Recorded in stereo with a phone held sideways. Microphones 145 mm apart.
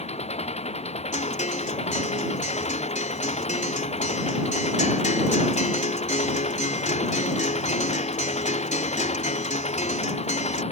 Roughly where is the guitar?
Left.